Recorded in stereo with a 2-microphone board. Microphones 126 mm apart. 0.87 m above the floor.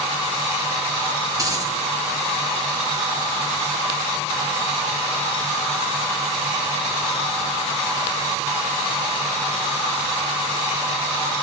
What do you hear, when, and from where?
1.3 s a dropped coin: 30° right (ahead or behind), 4.5 m